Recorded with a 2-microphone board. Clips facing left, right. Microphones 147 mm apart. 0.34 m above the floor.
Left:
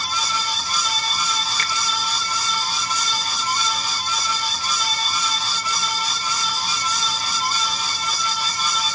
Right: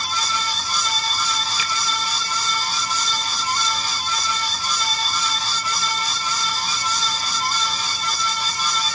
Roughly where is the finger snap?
Centre.